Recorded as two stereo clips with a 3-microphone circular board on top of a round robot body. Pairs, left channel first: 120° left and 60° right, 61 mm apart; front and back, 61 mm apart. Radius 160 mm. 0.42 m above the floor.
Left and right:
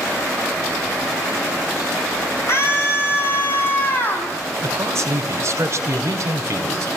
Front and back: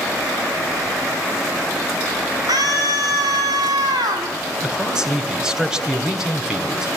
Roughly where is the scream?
Behind.